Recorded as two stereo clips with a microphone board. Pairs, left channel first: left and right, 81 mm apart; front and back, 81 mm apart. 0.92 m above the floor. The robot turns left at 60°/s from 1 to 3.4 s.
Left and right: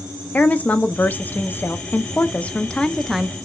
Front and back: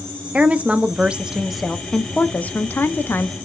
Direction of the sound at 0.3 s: 130° left.